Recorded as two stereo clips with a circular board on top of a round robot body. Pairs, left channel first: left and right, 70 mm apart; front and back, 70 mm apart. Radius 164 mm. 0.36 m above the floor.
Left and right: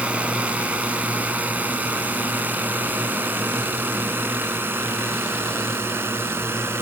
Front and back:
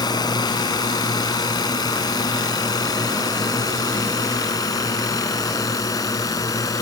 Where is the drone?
20° right; by 6.8 s 35° right.